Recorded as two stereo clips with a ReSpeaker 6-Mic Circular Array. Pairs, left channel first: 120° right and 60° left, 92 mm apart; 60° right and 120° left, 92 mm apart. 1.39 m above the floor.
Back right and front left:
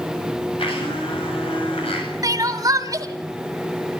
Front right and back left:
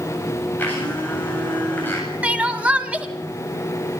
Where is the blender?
130° right, 8.5 m.